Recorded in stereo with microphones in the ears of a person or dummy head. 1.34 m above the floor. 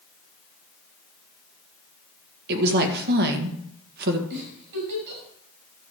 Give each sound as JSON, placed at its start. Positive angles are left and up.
{"t": 2.5, "sound": "a woman speaking", "side_deg": -55, "distance_m": 1.7}
{"t": 4.3, "sound": "a giggle", "side_deg": -65, "distance_m": 5.5}